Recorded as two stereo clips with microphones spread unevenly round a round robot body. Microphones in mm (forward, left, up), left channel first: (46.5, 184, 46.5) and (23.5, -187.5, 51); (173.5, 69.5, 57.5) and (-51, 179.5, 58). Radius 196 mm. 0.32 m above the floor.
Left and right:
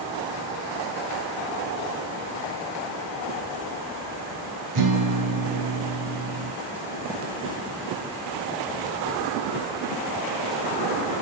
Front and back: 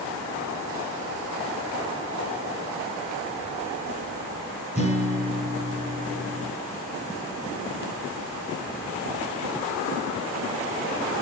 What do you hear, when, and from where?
4.8 s a guitar: 140° right, 7 m